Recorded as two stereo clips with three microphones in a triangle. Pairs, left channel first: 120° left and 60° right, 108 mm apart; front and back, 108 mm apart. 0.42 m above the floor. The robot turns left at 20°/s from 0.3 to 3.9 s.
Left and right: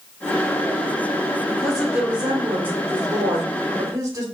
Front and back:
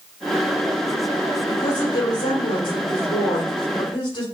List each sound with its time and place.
1.5 s a woman speaking: 30° left, 2 m; by 4.2 s 20° right, 2 m